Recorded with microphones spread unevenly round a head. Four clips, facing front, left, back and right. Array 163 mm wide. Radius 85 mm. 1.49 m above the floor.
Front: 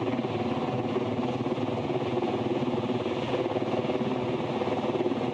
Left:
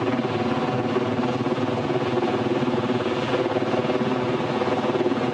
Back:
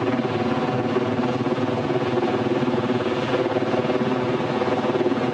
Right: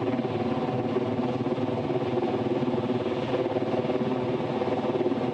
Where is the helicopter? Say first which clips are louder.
Left 4 dB, back 7 dB; 160° left.